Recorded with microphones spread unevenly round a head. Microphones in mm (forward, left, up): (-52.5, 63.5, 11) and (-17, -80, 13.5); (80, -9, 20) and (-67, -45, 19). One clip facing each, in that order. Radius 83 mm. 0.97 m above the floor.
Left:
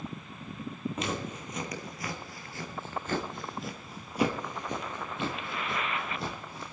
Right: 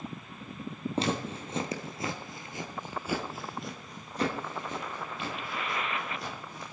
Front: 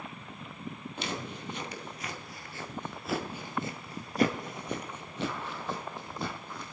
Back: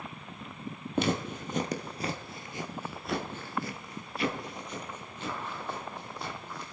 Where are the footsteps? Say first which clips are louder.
Right 4 dB, back 10 dB; 130° right, 1.6 m; by 6.7 s 35° left, 2.5 m.